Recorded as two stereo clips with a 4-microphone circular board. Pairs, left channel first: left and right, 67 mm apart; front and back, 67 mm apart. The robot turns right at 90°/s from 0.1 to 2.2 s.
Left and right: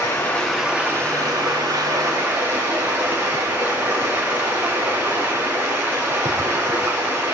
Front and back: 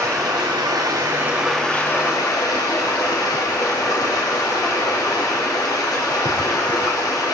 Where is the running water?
140° left, 8 m; by 7.4 s 30° right, 8 m.